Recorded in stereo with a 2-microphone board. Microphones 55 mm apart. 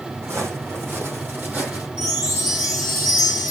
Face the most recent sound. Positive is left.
turn(degrees=-30)  # may be behind; listen again after turning